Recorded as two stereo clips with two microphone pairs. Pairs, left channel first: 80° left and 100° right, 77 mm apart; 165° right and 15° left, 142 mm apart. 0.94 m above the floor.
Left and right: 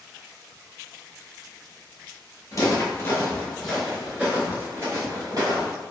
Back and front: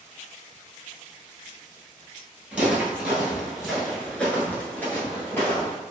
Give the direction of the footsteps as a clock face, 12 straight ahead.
9 o'clock.